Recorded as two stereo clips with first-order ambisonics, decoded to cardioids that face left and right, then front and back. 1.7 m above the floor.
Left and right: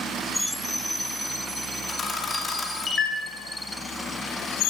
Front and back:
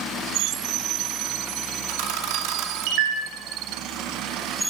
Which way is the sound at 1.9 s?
165° left.